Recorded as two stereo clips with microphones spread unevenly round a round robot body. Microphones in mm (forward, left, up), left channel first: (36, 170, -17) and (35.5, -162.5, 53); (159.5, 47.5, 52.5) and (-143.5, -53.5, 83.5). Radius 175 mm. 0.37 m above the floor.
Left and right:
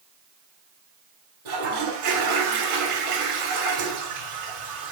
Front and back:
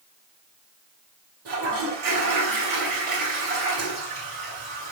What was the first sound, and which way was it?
A toilet flushing, 110° right.